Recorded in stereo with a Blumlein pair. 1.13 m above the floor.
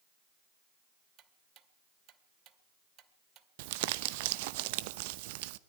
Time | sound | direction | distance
1.2 | ticking | 35° right | 1.7 m
3.6 | crumpling | 50° right | 0.8 m